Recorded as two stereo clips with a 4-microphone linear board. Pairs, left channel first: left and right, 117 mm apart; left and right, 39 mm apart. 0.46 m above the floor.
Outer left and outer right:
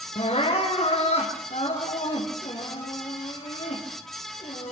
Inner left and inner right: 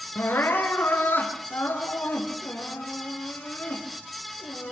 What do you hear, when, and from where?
0.1 s crying: 65° left (ahead or behind), 6.5 m